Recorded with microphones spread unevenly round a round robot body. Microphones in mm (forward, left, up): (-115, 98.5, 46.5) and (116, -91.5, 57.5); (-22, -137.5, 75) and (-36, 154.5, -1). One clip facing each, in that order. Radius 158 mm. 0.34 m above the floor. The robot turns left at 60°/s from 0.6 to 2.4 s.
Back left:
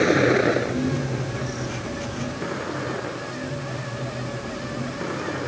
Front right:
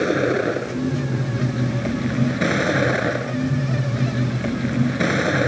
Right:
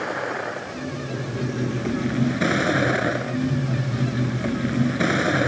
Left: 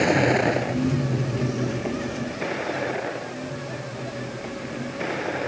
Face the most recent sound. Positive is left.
turn(degrees=-55)